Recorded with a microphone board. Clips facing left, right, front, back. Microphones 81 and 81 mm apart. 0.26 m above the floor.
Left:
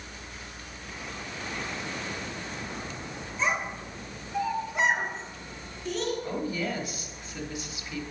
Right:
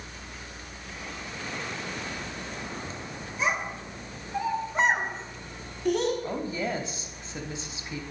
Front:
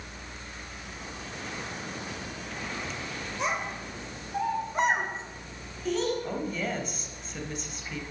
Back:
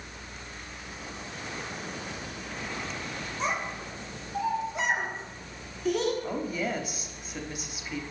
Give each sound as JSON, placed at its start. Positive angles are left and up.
{"t": 3.4, "sound": "a child speaking", "azimuth_deg": -15, "distance_m": 3.0}
{"t": 6.2, "sound": "a woman speaking", "azimuth_deg": -105, "distance_m": 1.0}